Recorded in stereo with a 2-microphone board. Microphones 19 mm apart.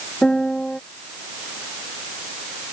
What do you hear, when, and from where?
0.2 s a piano: 45° left (ahead or behind)